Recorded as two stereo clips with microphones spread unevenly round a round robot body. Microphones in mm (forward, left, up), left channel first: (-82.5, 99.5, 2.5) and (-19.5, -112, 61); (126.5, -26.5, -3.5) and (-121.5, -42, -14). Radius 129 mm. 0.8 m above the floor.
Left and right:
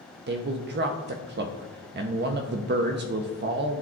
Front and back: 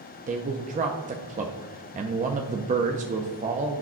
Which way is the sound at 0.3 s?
120° right.